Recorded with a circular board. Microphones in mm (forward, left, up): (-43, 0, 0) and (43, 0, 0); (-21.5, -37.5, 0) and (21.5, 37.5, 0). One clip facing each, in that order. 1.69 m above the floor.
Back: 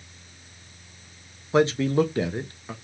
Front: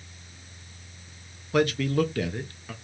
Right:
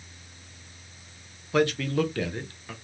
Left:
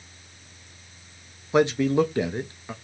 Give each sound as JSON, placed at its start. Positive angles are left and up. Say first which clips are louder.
{"t": 1.5, "sound": "a man speaking", "louder": "back 3 dB, left 4 dB", "azimuth_deg": 120, "distance_m": 0.7}